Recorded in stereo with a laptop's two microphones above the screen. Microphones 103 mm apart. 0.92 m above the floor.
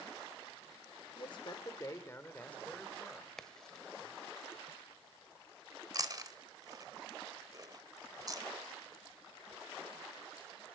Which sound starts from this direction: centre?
A crack, at 3.4 s.